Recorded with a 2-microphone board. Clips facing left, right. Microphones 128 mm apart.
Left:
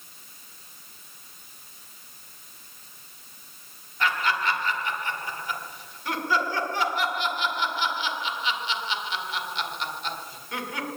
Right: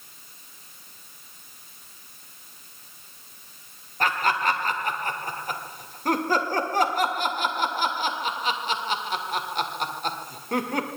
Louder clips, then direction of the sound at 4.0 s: Right 2 dB; 45° right (ahead or behind).